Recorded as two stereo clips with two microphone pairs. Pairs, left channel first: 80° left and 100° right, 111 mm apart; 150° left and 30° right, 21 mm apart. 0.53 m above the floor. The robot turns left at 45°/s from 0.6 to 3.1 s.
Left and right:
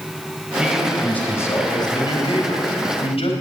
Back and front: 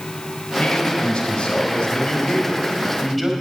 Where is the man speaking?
175° left, 3 m; by 3.3 s 65° left, 3 m.